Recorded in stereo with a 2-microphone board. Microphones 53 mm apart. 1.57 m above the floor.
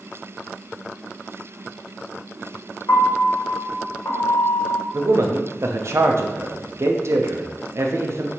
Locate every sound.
2.9 s a piano: 70° left (ahead or behind), 1.0 m
4.9 s a man speaking: 60° right (ahead or behind), 0.6 m